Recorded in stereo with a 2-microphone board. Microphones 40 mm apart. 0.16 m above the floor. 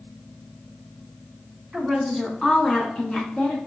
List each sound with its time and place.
1.7 s a woman speaking: 5° right (ahead or behind), 1.1 m; by 3.6 s 30° left (ahead or behind), 1.7 m